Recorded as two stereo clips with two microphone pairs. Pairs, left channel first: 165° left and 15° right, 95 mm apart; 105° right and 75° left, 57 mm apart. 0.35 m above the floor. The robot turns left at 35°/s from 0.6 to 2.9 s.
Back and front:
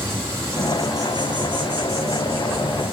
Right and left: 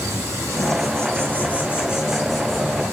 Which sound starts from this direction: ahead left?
An insect, at 0.0 s.